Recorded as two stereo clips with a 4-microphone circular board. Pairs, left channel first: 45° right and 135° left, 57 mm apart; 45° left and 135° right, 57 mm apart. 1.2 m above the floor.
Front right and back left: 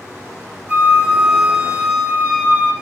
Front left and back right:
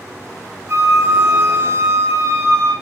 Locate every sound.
0.7 s a flute: 165° right, 2.5 m